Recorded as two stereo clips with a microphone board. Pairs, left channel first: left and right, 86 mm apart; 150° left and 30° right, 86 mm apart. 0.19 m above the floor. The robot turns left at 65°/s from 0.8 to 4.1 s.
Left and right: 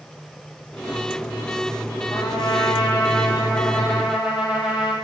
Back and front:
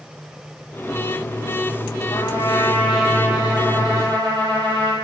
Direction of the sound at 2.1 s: 120° left.